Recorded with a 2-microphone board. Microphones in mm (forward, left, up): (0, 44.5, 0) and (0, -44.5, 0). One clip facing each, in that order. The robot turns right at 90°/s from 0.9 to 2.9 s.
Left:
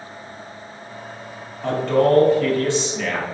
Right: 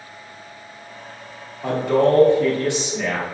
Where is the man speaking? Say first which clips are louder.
Even; 10° right (ahead or behind), 0.7 m; by 3.2 s 15° right (ahead or behind), 0.7 m.